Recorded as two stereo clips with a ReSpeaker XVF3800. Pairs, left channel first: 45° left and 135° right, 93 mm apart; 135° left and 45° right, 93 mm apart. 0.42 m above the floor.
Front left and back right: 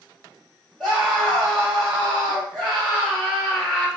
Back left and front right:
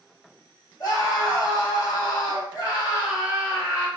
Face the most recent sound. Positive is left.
turn(degrees=115)